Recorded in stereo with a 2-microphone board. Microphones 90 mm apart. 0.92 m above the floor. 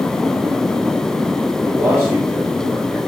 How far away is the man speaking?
About 2.5 m.